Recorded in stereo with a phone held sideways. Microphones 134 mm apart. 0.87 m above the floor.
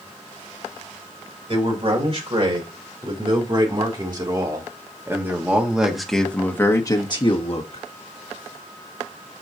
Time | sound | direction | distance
1.5 | a man speaking | 45° right (ahead or behind) | 4.5 m